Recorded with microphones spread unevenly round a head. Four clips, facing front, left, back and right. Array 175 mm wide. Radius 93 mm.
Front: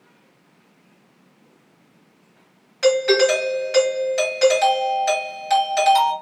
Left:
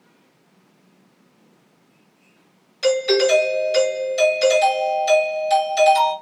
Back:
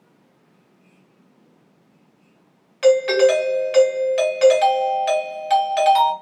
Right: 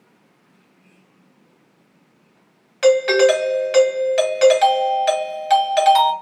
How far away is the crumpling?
I don't hear crumpling.